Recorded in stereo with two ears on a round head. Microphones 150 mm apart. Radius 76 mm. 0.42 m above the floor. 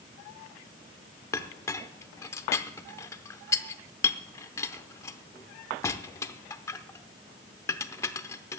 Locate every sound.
1.3 s a clink: 15° left (ahead or behind), 0.6 m